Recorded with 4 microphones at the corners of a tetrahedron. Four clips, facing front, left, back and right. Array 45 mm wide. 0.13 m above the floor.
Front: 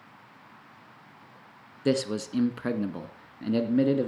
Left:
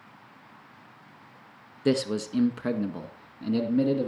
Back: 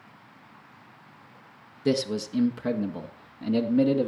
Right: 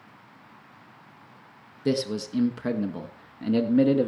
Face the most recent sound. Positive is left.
turn(degrees=-65)